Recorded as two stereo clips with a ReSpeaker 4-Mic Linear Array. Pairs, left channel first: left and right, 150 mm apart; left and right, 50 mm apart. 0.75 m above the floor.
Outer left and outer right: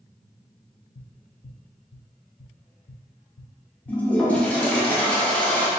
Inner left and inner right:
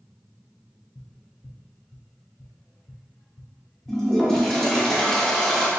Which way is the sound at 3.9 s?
10° left (ahead or behind).